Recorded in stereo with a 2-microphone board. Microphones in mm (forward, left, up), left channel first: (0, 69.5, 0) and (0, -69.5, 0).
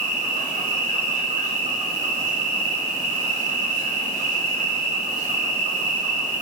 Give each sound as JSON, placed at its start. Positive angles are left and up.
{"t": 0.0, "sound": "an insect", "side_deg": -55, "distance_m": 1.1}